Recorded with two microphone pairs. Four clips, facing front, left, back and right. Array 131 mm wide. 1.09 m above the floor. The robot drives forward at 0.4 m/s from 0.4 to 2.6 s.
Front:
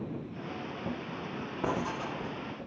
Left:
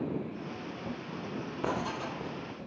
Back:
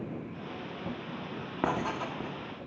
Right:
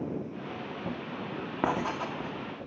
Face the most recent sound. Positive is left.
turn(degrees=-125)